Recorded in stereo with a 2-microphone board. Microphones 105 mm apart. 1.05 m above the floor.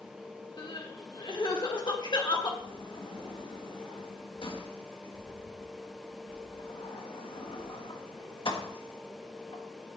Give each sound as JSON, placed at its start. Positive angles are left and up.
{"t": 0.6, "sound": "crying", "side_deg": 45, "distance_m": 1.6}
{"t": 2.6, "sound": "a sliding door", "side_deg": 55, "distance_m": 1.5}